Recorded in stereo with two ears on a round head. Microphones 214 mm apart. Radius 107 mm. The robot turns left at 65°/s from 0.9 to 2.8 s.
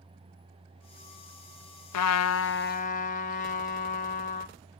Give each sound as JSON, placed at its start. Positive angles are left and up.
{"t": 1.9, "sound": "a trumpet", "azimuth_deg": 90, "distance_m": 0.5}